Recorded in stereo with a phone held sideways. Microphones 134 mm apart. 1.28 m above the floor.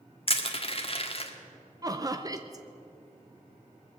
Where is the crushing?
45° left (ahead or behind), 1.4 m.